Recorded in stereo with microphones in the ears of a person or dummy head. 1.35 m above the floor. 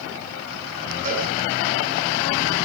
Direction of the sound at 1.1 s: 45° right (ahead or behind).